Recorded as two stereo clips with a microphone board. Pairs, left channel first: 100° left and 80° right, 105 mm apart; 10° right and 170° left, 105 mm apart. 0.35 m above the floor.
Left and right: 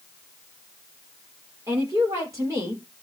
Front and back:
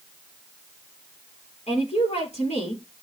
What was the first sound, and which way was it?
A woman speaking, 20° right.